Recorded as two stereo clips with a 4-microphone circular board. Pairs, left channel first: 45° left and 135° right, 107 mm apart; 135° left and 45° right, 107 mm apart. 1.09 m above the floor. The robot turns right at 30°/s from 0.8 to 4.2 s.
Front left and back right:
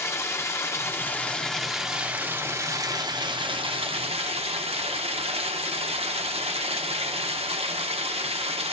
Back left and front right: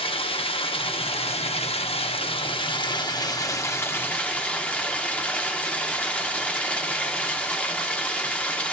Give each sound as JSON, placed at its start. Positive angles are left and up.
{"t": 0.0, "sound": "running water", "azimuth_deg": 110, "distance_m": 0.8}